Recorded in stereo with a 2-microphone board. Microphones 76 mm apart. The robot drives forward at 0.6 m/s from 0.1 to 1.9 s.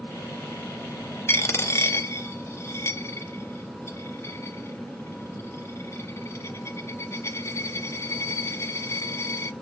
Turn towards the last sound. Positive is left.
turn(degrees=35)  # may be behind; listen again after turning